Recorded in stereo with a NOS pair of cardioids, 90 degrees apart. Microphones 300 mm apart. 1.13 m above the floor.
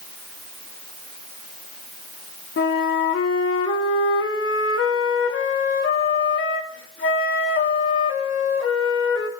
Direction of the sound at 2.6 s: 45° left.